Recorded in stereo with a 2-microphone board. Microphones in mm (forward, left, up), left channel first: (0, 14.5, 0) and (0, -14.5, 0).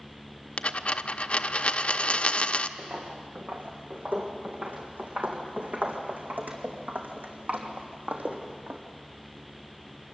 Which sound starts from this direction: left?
A dropped coin, at 0.6 s.